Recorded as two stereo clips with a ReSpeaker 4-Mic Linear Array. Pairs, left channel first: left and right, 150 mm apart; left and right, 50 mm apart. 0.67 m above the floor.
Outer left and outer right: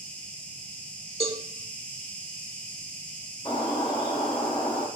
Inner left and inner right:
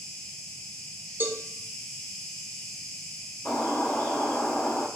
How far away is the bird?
About 2.0 m.